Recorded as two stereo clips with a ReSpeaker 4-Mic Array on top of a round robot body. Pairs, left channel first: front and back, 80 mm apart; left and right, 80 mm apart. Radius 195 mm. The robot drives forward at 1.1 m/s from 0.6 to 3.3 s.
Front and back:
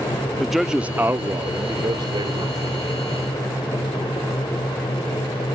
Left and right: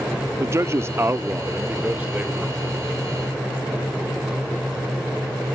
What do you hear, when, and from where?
0.4 s a man speaking: 95° right; by 2.8 s 165° right